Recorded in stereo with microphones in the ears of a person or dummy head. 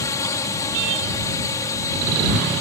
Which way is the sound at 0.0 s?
15° left (ahead or behind).